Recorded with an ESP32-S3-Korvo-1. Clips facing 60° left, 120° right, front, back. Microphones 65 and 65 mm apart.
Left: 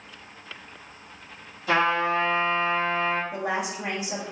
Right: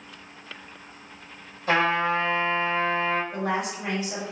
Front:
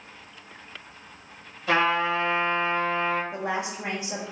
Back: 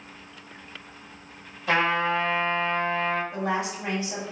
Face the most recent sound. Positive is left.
turn(degrees=-5)